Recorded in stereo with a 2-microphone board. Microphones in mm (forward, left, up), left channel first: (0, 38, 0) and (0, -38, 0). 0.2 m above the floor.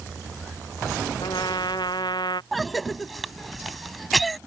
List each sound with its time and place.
1.2 s a trumpet: 85° left
2.5 s a cough: centre (ahead or behind)